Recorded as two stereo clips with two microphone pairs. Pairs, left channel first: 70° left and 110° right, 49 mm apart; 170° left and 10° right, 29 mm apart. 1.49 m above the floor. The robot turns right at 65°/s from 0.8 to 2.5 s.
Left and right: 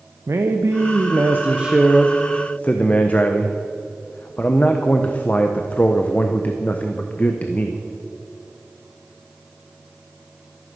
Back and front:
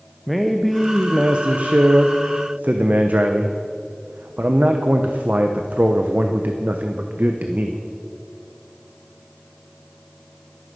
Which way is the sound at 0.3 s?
95° right.